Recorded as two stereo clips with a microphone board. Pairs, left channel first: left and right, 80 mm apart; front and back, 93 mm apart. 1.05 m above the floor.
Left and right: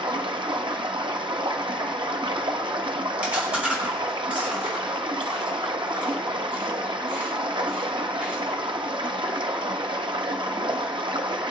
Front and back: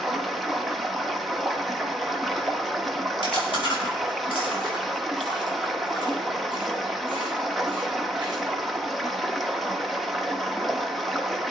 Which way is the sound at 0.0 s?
90° right.